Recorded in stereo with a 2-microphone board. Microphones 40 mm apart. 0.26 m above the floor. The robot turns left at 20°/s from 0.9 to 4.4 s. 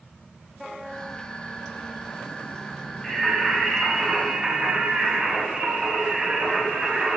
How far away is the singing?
About 1.7 m.